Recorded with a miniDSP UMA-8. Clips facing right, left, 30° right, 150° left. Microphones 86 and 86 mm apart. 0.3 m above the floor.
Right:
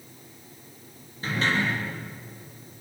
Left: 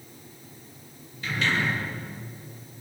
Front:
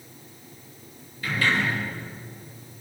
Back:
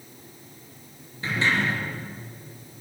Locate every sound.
1.2 s a sliding door: 145° right, 7 m